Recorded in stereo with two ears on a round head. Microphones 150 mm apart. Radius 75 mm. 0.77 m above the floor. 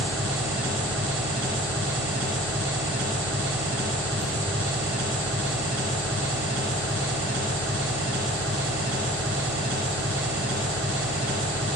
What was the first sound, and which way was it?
An engine running, 80° right.